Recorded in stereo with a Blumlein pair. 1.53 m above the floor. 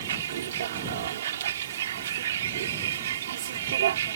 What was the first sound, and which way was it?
A vehicle, 60° right.